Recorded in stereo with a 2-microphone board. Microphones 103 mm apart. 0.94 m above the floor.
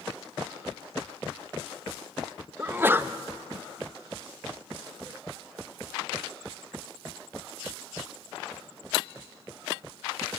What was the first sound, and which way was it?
A sneeze, 20° right (ahead or behind).